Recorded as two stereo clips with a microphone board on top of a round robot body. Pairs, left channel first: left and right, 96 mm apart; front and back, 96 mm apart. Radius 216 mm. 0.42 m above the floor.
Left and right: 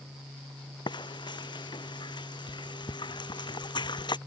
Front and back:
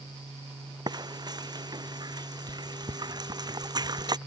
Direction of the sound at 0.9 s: 130° left.